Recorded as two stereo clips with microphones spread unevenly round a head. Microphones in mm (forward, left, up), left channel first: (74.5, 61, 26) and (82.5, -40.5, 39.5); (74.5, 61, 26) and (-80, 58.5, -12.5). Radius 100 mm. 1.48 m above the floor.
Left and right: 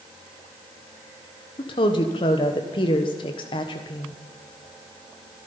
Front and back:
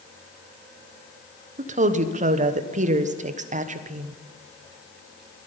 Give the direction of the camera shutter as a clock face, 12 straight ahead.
No camera shutter in this recording.